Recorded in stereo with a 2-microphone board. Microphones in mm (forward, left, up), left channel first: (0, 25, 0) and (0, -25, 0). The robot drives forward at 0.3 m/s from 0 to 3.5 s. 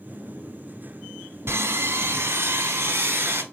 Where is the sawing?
60° right (ahead or behind), 0.9 m; by 3.4 s 45° right (ahead or behind), 1.0 m.